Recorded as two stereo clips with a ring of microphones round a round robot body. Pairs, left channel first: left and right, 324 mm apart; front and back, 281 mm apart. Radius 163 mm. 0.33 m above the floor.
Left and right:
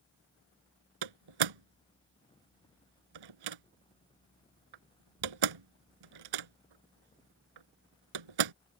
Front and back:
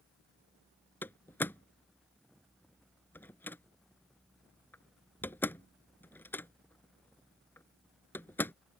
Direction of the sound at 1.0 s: 85° right.